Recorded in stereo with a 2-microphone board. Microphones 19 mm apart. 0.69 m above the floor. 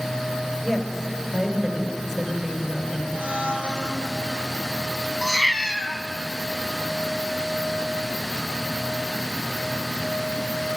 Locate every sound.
0.6 s a woman speaking: 15° right (ahead or behind), 4 m
3.1 s a blender: 75° right (ahead or behind), 3.5 m
5.2 s a cat meowing: 20° right (ahead or behind), 1.6 m